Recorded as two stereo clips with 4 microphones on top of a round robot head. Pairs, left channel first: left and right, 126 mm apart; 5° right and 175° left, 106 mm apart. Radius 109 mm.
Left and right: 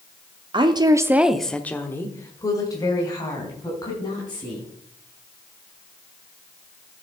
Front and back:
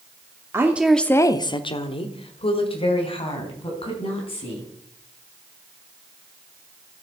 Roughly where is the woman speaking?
Behind right.